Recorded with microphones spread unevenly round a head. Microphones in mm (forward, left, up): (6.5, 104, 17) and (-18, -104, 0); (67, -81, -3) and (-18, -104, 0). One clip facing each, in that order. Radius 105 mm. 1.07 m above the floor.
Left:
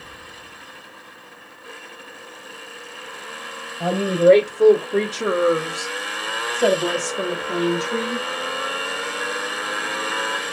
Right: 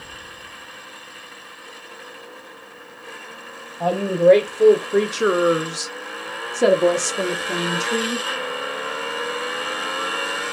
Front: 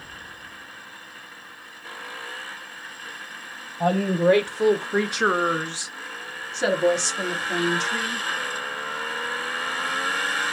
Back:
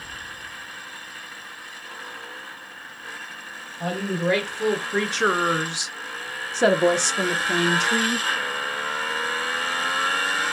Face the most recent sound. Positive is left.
turn(degrees=-145)